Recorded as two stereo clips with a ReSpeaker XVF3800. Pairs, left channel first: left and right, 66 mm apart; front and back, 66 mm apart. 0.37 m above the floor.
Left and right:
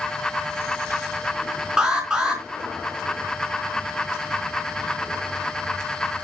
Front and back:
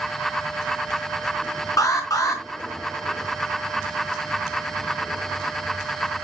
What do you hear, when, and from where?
1.8 s an alarm: 10° right, 3.5 m